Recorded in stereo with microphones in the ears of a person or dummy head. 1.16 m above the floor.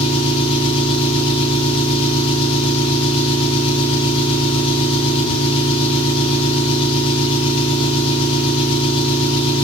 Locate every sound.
0.0 s an engine running: 30° left (ahead or behind), 7 m